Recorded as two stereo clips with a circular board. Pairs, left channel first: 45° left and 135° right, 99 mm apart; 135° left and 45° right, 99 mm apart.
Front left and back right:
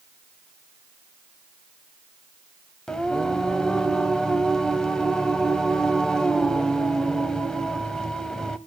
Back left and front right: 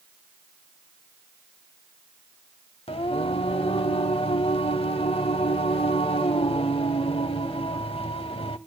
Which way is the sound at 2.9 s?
130° left.